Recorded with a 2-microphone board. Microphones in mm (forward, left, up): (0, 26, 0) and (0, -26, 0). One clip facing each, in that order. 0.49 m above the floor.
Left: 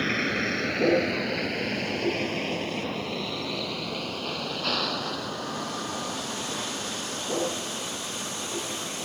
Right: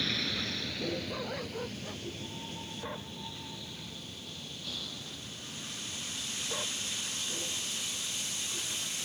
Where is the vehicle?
45° left (ahead or behind); by 9.1 s 70° left (ahead or behind).